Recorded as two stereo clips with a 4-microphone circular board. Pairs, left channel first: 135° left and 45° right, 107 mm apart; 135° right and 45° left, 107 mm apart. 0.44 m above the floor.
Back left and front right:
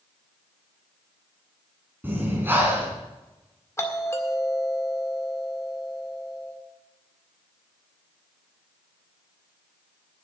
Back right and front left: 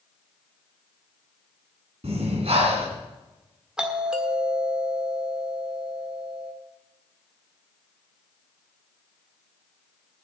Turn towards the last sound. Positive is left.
turn(degrees=120)